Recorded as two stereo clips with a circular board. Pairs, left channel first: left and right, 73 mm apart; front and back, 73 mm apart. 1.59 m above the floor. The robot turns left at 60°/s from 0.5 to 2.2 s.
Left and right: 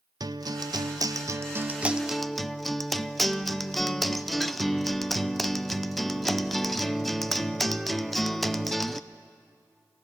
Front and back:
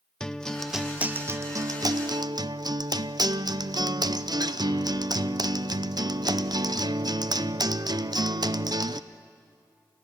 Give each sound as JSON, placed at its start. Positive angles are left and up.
{"t": 0.2, "sound": "a guitar", "azimuth_deg": -80, "distance_m": 0.6}